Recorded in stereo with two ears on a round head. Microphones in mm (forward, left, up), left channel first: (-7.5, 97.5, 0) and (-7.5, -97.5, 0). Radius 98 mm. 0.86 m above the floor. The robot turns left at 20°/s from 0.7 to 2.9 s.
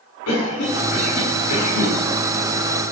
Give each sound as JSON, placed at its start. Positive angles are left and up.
{"t": 0.3, "sound": "a cough", "side_deg": 85, "distance_m": 10.0}